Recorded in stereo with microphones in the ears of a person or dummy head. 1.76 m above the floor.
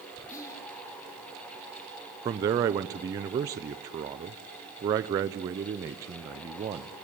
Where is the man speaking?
25° right (ahead or behind), 0.5 m.